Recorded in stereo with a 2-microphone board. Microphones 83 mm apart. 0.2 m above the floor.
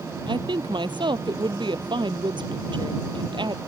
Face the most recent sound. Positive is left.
turn(degrees=-70)  # may be behind; listen again after turning